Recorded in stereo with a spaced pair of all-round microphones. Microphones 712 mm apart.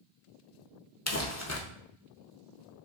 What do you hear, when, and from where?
1.1 s crumpling: 25° left (ahead or behind), 0.5 m